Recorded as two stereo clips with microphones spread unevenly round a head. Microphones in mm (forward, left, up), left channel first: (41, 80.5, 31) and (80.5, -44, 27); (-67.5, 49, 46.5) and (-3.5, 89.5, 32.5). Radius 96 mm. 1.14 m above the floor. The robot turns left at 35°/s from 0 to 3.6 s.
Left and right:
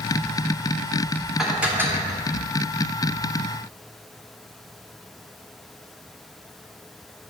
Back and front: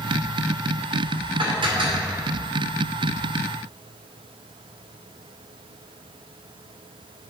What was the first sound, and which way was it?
Dishes clattering, 15° left.